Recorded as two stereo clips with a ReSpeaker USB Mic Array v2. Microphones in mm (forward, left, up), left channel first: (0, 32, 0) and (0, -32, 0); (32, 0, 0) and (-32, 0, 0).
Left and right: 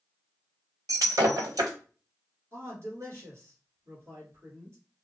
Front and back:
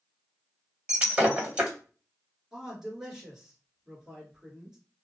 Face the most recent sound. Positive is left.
turn(degrees=-105)